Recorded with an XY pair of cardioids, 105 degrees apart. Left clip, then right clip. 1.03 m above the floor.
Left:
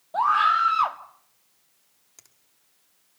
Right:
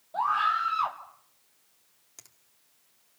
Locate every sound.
0.1 s a scream: 40° left, 2 m
2.2 s a finger snap: 15° right, 2.5 m